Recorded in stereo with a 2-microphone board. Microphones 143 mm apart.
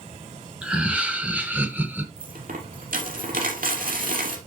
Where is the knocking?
I don't hear knocking.